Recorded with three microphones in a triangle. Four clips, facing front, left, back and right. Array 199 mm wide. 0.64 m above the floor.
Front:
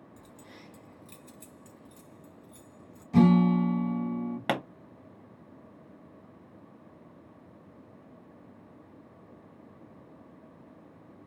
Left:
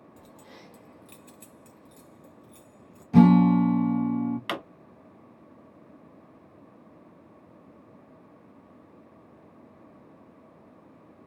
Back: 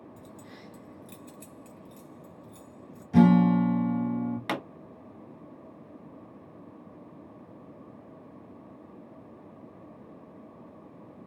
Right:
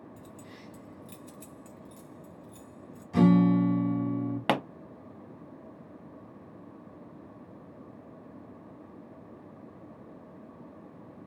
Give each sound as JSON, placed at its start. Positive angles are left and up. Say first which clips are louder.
{"t": 0.2, "sound": "keys jangling", "louder": "right 2 dB, back 4 dB", "azimuth_deg": 85, "distance_m": 1.9}
{"t": 3.1, "sound": "a guitar", "louder": "left 5 dB, back 2 dB", "azimuth_deg": 110, "distance_m": 2.0}
{"t": 4.5, "sound": "a pop", "louder": "right 6 dB, front 7 dB", "azimuth_deg": -70, "distance_m": 1.0}